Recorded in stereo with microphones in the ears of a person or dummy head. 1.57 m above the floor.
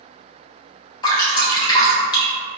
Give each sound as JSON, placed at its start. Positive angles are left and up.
{"t": 1.0, "sound": "dripping", "side_deg": 25, "distance_m": 0.9}